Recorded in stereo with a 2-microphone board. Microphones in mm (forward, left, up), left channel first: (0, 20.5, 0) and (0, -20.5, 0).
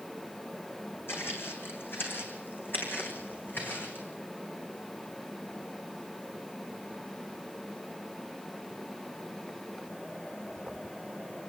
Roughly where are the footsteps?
Left.